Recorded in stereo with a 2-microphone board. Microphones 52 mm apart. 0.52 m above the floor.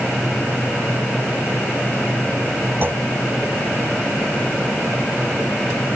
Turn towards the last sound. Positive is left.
turn(degrees=-45)  # may be behind; listen again after turning